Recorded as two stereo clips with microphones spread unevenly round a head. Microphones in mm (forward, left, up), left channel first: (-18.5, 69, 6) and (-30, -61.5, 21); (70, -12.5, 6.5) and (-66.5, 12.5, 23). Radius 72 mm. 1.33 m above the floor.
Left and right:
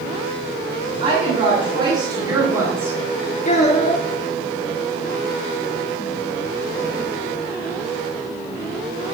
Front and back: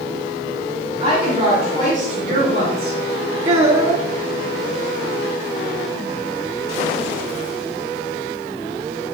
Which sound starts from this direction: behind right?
A woman speaking, at 1.0 s.